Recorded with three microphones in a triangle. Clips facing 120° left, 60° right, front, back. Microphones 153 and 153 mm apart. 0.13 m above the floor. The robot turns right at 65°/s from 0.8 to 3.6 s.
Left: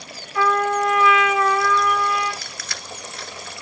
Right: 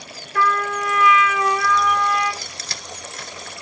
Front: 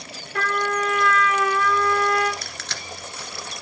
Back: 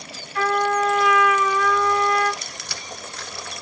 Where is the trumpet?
25° right, 6 m; by 2.3 s 70° left, 6 m.